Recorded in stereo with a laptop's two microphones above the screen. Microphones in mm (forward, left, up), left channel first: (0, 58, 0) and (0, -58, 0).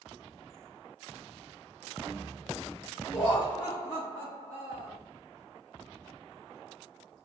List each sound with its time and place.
3.1 s laughter: 5° left (ahead or behind), 1.4 m; by 5.0 s 65° left (ahead or behind), 1.3 m